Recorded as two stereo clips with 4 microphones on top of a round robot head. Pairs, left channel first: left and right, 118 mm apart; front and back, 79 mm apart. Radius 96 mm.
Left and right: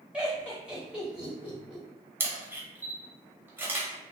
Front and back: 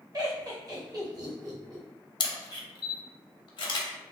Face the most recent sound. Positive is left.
turn(degrees=-20)